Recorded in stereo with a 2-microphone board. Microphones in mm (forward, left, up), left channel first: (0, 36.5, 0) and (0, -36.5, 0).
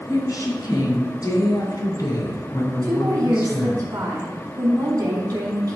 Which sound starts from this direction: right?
A woman speaking, at 2.8 s.